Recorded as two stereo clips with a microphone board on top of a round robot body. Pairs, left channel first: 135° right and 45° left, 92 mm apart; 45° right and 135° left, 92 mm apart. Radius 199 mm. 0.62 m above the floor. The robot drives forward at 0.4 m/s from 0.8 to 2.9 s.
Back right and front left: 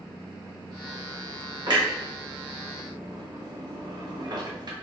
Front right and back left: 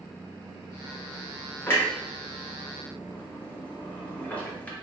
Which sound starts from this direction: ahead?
A clunk, at 1.7 s.